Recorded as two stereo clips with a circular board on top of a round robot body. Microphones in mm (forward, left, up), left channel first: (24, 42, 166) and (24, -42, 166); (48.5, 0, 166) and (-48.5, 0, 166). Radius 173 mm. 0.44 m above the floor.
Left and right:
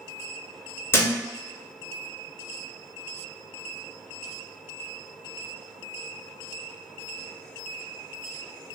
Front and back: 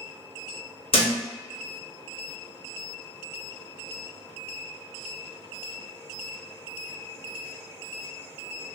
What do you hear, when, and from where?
0.9 s a thud: 25° left, 0.6 m